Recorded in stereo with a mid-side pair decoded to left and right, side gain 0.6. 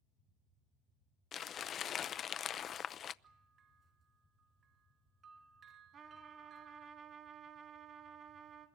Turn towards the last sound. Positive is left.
turn(degrees=-45)